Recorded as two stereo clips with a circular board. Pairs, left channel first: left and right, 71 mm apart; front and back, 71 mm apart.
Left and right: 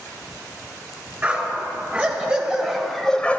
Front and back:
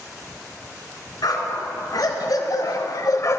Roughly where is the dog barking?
Ahead.